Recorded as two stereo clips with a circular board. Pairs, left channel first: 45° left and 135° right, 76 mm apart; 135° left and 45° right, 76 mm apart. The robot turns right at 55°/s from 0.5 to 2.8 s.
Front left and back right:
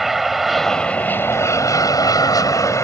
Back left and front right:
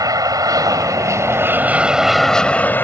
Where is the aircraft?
45° right; by 2.9 s 80° left.